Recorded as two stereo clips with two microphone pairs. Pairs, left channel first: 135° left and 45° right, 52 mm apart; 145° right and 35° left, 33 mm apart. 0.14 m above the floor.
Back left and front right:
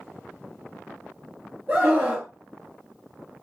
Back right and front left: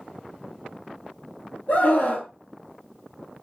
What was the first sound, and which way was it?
A scream, 115° right.